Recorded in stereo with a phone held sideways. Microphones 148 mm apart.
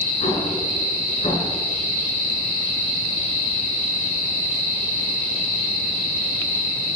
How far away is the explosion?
About 9 m.